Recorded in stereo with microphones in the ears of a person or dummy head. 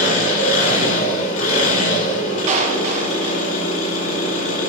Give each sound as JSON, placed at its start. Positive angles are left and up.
{"t": 0.0, "sound": "an engine running", "side_deg": 40, "distance_m": 5.0}
{"t": 2.5, "sound": "a clap", "side_deg": -35, "distance_m": 1.4}